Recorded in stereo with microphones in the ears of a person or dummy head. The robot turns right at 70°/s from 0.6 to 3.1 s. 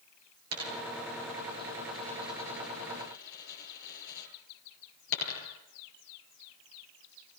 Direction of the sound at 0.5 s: 80° right.